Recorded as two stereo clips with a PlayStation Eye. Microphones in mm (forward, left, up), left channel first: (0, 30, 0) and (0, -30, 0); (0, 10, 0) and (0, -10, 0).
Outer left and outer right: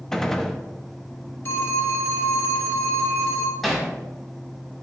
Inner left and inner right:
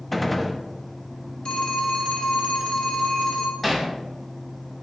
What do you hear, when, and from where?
0.1 s a gunshot: 5° left (ahead or behind), 0.7 m
1.4 s a phone ringing: 45° left (ahead or behind), 1.2 m
3.6 s hammering: 5° left (ahead or behind), 1.9 m